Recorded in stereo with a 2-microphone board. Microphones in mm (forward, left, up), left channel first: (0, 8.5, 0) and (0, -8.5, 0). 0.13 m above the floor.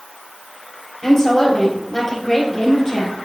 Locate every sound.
1.0 s a woman speaking: 30° left (ahead or behind), 3.5 m